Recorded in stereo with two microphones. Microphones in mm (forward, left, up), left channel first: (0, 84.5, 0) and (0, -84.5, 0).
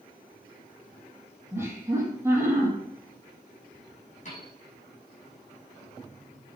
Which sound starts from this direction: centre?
Laughter, at 1.5 s.